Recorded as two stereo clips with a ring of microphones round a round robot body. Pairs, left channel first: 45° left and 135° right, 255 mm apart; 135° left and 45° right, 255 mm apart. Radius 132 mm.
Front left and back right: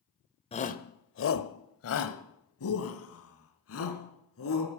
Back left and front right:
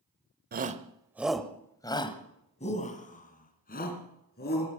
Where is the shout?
10° right, 1.1 m; by 4.7 s 80° left, 4 m.